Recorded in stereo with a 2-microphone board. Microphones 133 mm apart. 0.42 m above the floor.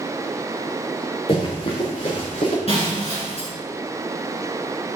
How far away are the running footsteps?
About 3 m.